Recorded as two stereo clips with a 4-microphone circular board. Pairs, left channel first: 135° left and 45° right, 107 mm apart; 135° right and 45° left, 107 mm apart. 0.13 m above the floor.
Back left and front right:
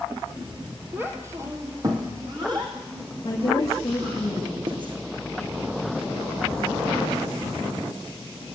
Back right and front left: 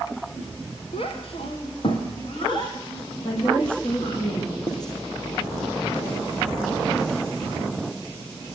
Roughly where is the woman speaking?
Behind.